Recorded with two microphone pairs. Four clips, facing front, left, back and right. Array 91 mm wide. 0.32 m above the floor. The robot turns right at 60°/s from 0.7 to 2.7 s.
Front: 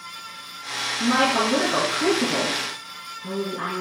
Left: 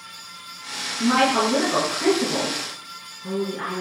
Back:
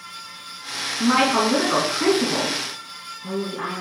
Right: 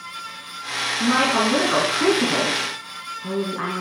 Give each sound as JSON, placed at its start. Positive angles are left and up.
{"t": 1.0, "sound": "a woman speaking", "azimuth_deg": 170, "distance_m": 3.5}